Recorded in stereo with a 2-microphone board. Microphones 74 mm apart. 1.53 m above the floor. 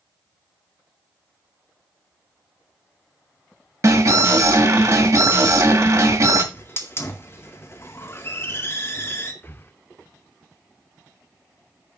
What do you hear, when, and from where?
3.8 s an alarm: 50° right (ahead or behind), 1.9 m
6.5 s a hiss: 35° left (ahead or behind), 1.9 m
9.4 s breathing: 30° left (ahead or behind), 0.6 m